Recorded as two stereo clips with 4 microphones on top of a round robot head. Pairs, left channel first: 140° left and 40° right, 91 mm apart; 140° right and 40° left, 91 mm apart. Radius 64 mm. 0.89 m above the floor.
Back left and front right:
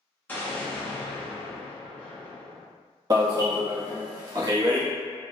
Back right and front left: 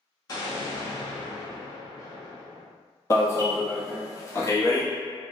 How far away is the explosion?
About 1.2 m.